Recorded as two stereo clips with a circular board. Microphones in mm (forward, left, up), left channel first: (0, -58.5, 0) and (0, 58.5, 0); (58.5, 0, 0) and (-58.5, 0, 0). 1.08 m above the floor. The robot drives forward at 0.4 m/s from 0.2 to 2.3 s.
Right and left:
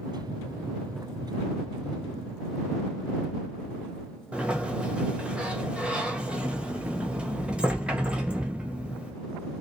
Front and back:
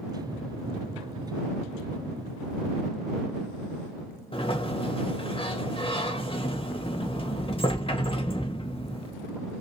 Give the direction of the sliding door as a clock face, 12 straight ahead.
12 o'clock.